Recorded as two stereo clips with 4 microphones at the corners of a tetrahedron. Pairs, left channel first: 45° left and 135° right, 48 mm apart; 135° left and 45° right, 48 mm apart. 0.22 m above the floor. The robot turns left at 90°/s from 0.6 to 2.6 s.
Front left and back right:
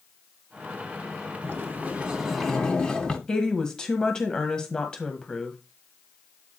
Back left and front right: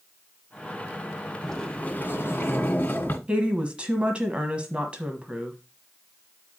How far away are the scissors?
I don't hear scissors.